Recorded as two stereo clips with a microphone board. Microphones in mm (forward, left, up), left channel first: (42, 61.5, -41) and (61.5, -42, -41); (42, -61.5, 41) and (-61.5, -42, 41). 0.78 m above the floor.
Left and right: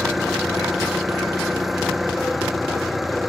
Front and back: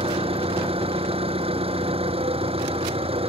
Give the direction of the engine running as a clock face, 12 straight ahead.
6 o'clock.